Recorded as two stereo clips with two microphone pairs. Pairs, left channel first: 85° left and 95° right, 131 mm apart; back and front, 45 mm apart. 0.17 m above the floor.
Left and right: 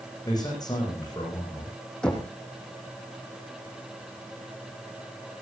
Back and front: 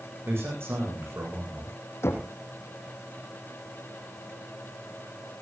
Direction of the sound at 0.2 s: 25° left.